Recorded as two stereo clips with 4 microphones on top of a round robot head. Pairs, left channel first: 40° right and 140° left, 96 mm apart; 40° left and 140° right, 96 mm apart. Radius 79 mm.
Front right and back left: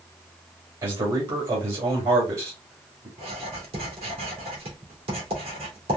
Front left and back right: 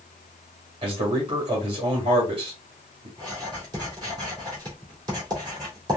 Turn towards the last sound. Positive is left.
turn(degrees=170)